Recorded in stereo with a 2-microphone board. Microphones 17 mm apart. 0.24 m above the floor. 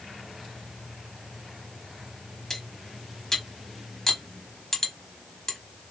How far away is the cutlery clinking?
About 0.9 m.